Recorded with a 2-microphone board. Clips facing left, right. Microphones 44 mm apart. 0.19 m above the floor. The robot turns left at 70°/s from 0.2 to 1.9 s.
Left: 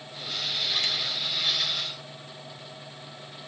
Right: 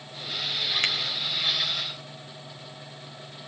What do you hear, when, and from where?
0.8 s a finger snap: 55° right (ahead or behind); by 0.9 s 60° right (ahead or behind)